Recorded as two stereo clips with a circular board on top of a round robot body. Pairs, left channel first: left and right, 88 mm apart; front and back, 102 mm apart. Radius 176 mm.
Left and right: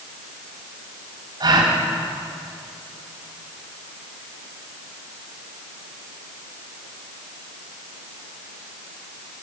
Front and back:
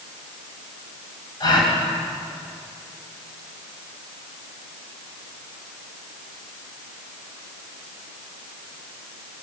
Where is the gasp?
50° right, 3.5 m.